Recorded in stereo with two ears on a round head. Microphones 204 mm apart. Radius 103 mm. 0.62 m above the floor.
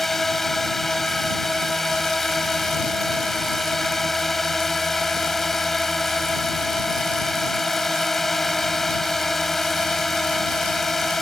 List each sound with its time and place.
0.0 s a drone: centre (ahead or behind)